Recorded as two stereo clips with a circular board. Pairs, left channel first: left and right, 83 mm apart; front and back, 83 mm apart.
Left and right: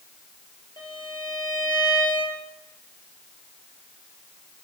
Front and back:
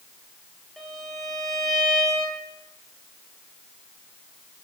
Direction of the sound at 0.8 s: 90° left.